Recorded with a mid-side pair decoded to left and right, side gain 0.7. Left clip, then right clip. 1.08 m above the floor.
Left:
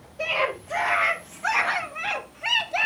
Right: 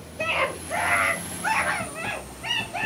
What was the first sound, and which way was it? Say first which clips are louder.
A scream: even; 15° right.